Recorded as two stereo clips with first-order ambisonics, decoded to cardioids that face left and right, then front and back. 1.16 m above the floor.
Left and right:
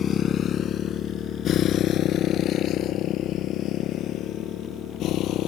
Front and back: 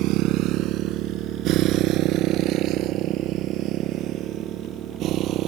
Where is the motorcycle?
150° left; by 5.5 s 135° left.